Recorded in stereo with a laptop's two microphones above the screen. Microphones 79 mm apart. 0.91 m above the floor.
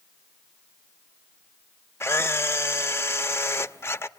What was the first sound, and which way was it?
A camera shutter, 30° left (ahead or behind).